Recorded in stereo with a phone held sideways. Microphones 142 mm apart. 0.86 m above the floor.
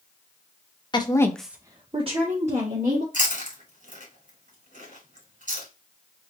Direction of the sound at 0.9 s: 35° left (ahead or behind).